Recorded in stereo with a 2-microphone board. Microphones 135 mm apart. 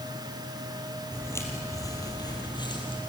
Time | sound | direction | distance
1.1 | footsteps | 20° left (ahead or behind) | 3 m